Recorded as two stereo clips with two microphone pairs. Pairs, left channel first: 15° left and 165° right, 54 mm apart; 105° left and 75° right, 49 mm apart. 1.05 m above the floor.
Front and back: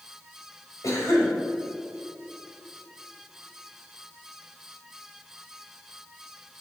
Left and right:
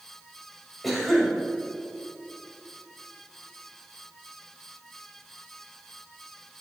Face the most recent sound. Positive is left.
turn(degrees=20)